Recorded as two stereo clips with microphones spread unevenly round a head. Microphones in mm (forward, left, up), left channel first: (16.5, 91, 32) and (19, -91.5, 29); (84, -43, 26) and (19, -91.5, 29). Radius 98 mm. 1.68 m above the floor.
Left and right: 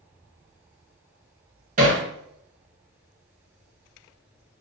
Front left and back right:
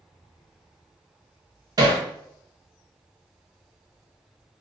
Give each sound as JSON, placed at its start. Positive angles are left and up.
{"t": 1.8, "sound": "hammering", "azimuth_deg": -130, "distance_m": 0.6}